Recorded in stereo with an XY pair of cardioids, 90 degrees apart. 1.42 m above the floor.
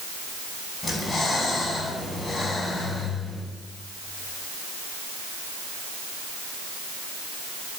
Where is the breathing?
35° left, 9.5 m.